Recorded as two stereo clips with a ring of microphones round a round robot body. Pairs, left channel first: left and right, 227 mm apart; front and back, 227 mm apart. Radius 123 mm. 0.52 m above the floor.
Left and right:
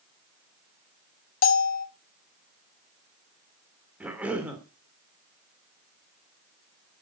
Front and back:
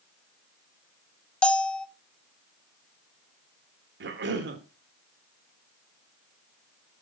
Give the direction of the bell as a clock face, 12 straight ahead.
9 o'clock.